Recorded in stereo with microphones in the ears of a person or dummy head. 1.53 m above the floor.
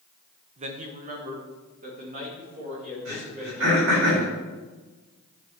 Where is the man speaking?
35° right (ahead or behind), 0.8 m; by 4.0 s 45° right (ahead or behind), 4.5 m.